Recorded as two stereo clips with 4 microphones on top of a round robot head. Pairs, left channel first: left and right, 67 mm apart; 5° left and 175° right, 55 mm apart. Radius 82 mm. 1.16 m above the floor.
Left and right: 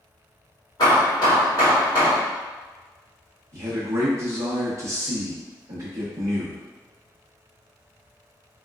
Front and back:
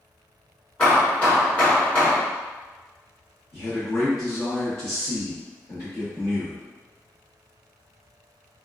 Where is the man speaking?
45° right, 1.1 m.